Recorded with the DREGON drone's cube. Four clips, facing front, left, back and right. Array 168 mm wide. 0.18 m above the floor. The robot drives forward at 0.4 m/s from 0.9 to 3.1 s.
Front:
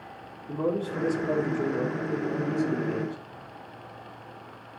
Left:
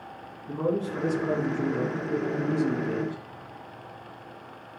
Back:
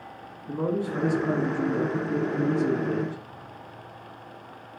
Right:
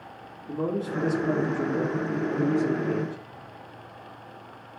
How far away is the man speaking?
About 2 m.